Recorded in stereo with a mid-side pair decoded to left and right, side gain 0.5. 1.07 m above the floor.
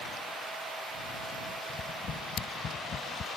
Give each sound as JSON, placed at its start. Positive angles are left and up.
{"t": 1.7, "sound": "tapping", "azimuth_deg": 45}